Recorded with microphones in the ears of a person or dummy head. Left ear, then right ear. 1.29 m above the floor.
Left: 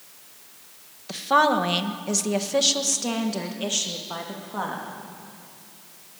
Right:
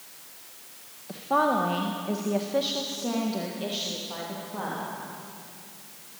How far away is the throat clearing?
I don't hear throat clearing.